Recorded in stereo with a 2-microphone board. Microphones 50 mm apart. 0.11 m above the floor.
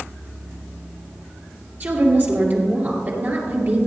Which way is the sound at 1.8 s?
40° right (ahead or behind).